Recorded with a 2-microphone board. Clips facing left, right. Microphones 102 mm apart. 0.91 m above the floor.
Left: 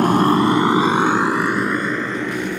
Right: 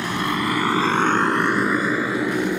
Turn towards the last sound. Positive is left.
turn(degrees=-15)  # may be behind; listen again after turning